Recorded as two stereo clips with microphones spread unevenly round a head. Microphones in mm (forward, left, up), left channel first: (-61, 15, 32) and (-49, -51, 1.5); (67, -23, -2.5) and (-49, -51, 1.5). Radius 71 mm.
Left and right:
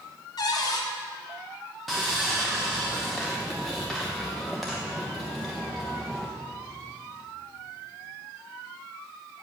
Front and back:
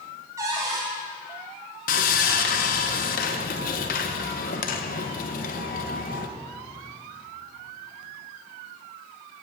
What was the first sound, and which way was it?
A cupboard door, 120° left.